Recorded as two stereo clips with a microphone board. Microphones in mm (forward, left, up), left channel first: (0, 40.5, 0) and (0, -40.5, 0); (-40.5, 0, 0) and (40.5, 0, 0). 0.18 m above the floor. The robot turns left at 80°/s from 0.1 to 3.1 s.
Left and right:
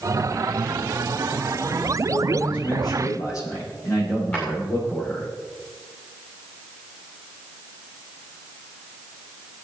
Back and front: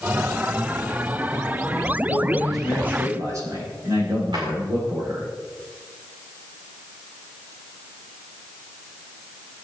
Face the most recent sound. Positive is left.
turn(degrees=25)